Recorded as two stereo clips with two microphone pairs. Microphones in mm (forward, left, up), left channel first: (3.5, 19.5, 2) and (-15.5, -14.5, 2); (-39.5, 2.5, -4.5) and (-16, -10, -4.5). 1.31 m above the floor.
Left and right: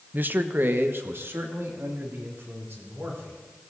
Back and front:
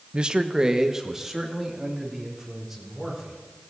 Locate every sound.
0.1 s a man speaking: 80° right, 0.8 m; by 3.3 s 110° right, 4.5 m